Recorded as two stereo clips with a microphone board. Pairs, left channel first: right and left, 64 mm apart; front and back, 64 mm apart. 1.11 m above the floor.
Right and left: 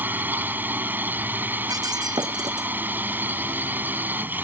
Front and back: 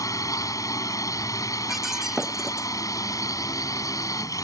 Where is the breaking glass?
95° left.